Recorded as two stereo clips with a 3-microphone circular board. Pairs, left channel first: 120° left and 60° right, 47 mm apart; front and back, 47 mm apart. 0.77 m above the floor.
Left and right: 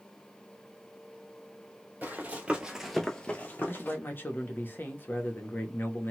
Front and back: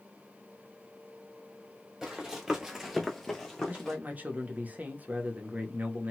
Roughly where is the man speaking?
Behind left.